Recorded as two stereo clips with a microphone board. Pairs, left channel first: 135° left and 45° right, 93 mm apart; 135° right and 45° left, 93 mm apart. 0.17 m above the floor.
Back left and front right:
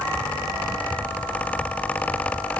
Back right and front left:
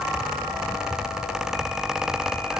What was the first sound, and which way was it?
Only background noise.